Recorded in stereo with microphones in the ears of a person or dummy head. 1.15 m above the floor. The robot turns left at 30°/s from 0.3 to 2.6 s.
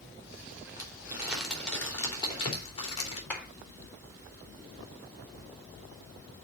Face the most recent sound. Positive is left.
turn(degrees=5)  # may be behind; listen again after turning